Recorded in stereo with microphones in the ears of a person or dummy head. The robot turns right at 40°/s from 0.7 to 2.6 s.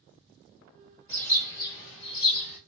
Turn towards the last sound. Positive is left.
turn(degrees=70)